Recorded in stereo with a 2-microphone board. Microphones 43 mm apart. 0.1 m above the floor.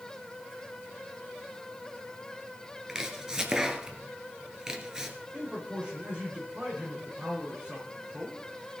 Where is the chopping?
15° right (ahead or behind), 1.6 m.